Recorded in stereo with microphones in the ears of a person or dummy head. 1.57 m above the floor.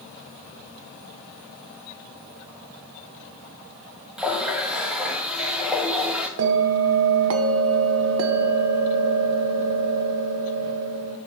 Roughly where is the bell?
Right.